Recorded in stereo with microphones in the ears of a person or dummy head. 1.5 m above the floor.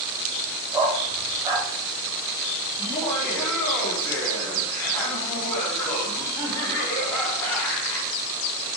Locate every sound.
0.7 s a dog barking: 15° right (ahead or behind), 1.5 m
2.8 s laughter: 20° left (ahead or behind), 3 m